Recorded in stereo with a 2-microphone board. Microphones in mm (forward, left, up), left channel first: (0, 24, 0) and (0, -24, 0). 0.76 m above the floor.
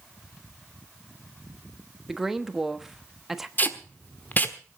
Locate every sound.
2.1 s a woman speaking: 5° right (ahead or behind), 1.1 m
3.6 s tape being pulled: 40° left (ahead or behind), 1.2 m